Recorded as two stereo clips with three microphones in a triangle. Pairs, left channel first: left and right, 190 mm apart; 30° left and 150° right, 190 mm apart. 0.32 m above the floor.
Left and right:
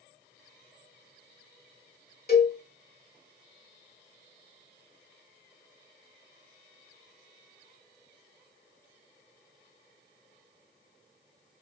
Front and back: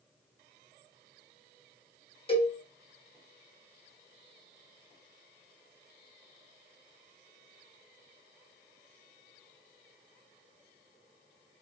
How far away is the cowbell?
About 1.3 m.